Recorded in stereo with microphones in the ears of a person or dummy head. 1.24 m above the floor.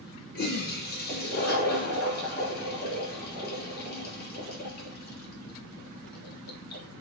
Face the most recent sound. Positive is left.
turn(degrees=50)  # may be behind; listen again after turning